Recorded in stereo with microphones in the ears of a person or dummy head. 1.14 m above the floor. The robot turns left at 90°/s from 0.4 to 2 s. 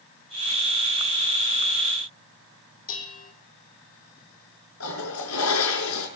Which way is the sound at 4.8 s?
80° left.